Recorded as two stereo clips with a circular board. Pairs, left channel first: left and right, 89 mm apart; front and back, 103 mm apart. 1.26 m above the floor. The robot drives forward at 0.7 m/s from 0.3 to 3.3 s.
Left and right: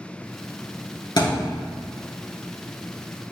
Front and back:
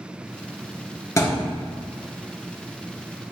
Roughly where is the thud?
Ahead left.